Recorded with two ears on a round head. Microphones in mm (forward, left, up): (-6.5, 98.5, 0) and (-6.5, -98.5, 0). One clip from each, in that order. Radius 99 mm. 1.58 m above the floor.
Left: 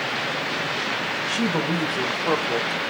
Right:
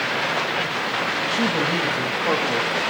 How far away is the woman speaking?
About 2 m.